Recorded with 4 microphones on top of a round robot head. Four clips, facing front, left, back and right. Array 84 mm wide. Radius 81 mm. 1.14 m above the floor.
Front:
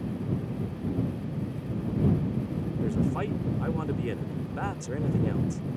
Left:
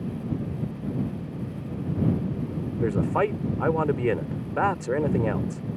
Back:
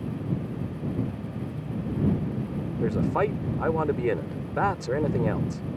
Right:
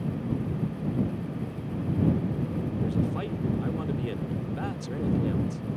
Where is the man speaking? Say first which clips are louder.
Left 9 dB, back 5 dB; 125° left.